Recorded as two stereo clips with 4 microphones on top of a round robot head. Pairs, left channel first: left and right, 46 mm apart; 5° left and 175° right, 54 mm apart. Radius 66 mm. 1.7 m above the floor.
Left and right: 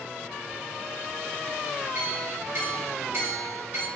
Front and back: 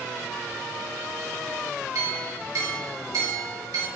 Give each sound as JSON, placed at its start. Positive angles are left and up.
{"t": 1.9, "sound": "a clink", "azimuth_deg": -150, "distance_m": 4.5}